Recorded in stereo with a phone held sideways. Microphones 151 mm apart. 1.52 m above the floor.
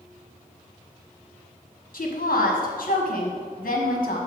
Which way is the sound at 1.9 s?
70° left (ahead or behind).